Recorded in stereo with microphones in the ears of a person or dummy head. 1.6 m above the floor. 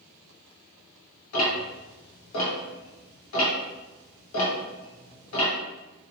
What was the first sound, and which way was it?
Ticking, 80° left.